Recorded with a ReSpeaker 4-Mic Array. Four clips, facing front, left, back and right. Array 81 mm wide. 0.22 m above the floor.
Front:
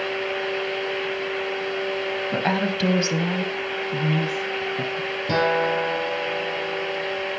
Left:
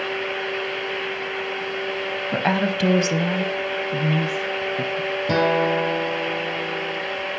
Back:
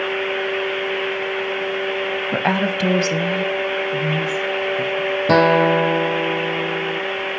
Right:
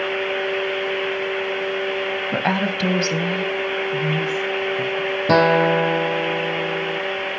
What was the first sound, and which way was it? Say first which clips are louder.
A woman speaking: left 2 dB, back 4 dB; 165° right.